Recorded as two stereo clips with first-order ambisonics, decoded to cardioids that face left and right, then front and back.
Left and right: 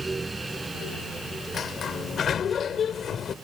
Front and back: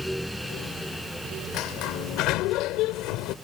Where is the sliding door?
25° left.